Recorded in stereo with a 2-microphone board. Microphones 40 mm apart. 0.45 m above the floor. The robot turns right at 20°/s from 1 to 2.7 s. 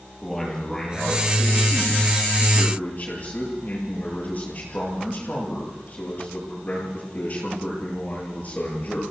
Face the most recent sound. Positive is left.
turn(degrees=40)